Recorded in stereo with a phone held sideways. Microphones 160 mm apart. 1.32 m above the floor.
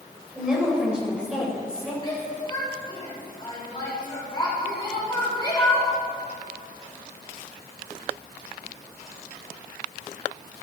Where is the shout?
30° left (ahead or behind), 6 m.